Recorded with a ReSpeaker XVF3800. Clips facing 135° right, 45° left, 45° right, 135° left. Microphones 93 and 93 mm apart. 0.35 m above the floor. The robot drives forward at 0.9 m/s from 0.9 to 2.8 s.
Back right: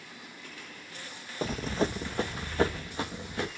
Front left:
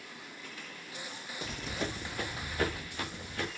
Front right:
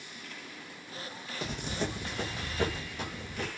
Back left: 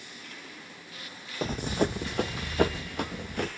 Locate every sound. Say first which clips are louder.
1.4 s running footsteps: back right 8 dB, back left 7 dB; 175° right, 0.7 m; by 3.5 s 160° left, 3 m